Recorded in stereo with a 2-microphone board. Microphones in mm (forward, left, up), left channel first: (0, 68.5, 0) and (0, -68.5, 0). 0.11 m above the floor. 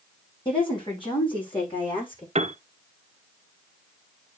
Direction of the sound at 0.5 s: 40° left (ahead or behind).